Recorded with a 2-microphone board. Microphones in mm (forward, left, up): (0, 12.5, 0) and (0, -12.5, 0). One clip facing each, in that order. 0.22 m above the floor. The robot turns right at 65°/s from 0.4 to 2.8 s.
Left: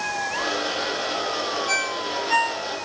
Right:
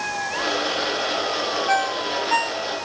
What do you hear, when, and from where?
1.7 s a ringtone: 80° left, 3 m; by 2.9 s 10° left (ahead or behind), 3 m